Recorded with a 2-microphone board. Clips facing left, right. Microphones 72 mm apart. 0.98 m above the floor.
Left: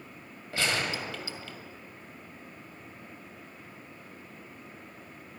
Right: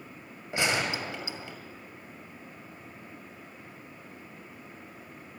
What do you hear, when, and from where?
0.5 s a gunshot: 20° right (ahead or behind), 2 m